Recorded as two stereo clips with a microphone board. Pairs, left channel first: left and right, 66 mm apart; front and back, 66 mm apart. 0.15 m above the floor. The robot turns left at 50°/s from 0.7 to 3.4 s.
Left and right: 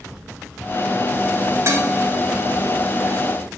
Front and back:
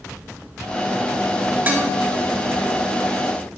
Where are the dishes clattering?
125° right, 1.5 m; by 1.9 s 140° right, 1.5 m.